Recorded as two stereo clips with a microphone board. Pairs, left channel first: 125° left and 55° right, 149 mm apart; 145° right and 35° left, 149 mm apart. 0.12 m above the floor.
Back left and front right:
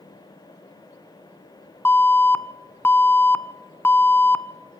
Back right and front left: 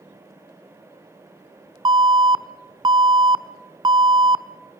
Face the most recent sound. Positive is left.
turn(degrees=60)